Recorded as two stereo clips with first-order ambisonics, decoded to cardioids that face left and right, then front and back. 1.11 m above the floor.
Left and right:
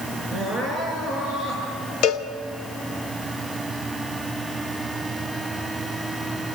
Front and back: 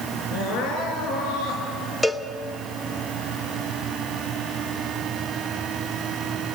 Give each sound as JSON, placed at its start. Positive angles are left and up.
{"t": 0.3, "sound": "crying", "azimuth_deg": 20, "distance_m": 6.0}
{"t": 2.0, "sound": "a cowbell", "azimuth_deg": 85, "distance_m": 0.9}